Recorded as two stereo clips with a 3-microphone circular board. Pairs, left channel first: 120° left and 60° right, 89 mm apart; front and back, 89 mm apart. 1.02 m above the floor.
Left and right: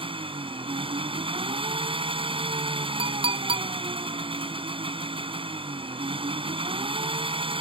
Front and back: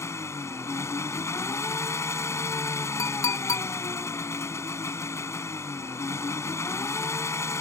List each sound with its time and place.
0.0 s an engine running: 60° right
3.0 s a clink: 55° right